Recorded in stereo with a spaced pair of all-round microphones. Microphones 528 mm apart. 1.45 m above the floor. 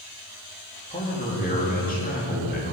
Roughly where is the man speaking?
Centre.